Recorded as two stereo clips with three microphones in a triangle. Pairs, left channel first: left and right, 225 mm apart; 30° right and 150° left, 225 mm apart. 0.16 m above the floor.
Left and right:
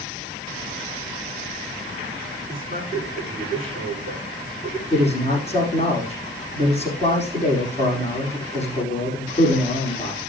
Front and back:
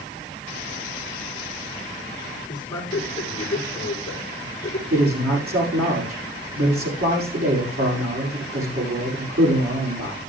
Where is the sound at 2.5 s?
40° left, 8 m.